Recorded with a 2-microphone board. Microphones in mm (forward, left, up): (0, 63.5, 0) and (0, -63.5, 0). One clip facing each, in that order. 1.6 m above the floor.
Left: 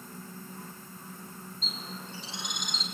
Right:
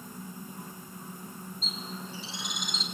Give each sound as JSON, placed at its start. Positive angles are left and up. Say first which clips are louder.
{"t": 1.6, "sound": "a bird", "louder": "right 1 dB", "side_deg": 0, "distance_m": 4.5}